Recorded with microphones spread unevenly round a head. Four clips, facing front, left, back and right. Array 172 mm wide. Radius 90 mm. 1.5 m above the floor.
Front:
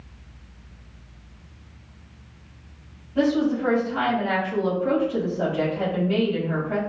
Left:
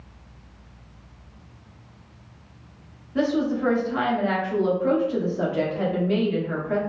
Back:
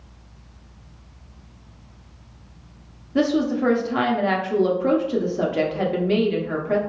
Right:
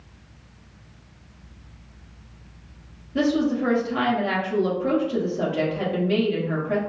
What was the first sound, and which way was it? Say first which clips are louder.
A woman speaking: right 1 dB, back 1 dB; 165° right.